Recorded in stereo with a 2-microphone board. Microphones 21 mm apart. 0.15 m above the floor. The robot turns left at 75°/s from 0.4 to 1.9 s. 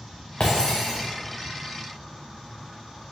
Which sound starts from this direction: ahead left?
Breaking glass, at 0.4 s.